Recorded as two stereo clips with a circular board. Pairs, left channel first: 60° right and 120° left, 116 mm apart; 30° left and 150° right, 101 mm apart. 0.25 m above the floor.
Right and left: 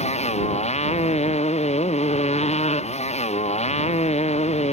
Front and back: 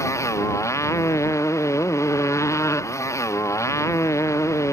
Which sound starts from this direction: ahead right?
A motorcycle, at 0.0 s.